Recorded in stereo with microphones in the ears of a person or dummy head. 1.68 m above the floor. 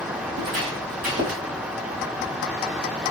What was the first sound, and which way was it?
Footsteps, 45° right (ahead or behind).